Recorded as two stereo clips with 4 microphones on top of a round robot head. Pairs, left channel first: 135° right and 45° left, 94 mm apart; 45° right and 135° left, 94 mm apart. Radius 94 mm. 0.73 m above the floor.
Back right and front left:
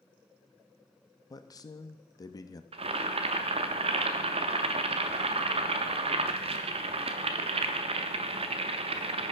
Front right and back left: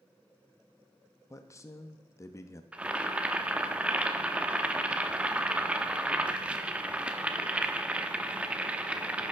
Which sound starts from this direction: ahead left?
Boiling, at 2.7 s.